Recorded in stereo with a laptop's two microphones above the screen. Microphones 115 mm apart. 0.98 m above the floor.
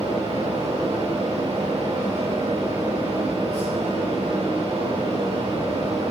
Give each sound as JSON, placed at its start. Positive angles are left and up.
{"t": 0.0, "sound": "a fan", "side_deg": -65, "distance_m": 2.0}